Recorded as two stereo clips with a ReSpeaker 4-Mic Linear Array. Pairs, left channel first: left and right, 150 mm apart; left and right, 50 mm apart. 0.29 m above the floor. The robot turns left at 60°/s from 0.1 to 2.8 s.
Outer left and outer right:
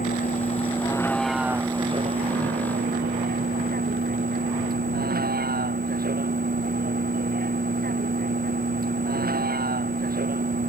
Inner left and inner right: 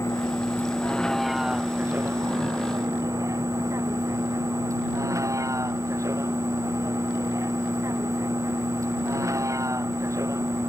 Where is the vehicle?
70° left (ahead or behind); by 10.7 s 80° right.